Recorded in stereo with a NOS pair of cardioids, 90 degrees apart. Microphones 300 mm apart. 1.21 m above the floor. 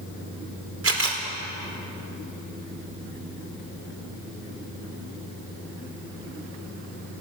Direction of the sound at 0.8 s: 45° right.